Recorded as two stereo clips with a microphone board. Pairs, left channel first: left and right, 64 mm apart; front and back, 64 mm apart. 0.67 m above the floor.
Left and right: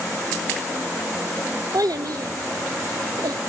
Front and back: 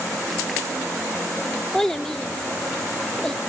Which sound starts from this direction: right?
A child speaking, at 1.7 s.